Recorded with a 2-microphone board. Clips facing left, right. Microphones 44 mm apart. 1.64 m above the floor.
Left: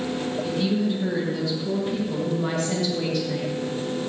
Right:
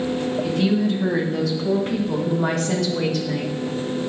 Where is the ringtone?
I don't hear a ringtone.